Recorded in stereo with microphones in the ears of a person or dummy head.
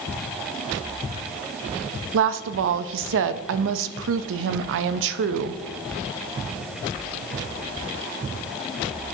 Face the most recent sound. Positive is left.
turn(degrees=-75)  # may be behind; listen again after turning